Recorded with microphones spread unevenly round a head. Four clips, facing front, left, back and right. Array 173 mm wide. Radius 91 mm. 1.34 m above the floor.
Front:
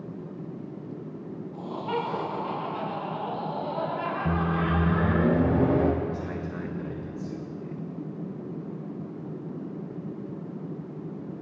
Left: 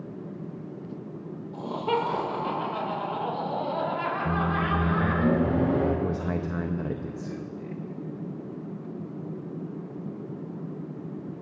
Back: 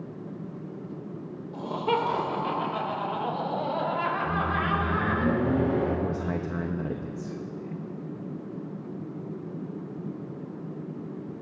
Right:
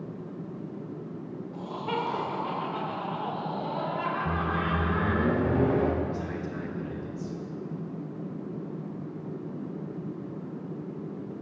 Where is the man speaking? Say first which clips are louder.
Left 3 dB, back 2 dB; 120° left, 0.8 m.